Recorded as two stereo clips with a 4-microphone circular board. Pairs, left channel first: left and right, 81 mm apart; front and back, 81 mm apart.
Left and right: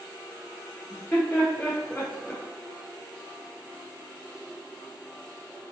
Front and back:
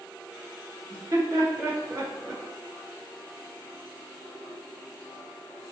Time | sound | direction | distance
0.9 | laughter | 145° left | 1.3 m